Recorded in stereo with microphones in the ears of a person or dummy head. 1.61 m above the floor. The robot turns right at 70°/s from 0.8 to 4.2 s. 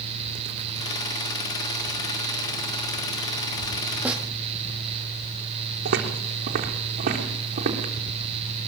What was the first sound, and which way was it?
A snare drum, 10° right (ahead or behind).